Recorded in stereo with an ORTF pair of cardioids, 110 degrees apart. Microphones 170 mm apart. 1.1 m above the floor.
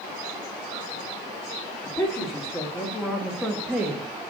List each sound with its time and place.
1.9 s a woman speaking: 20° left, 2 m; by 4.3 s 15° right, 1.3 m